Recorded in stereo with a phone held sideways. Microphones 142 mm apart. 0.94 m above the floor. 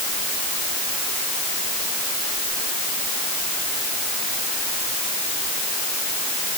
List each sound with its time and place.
Only background noise.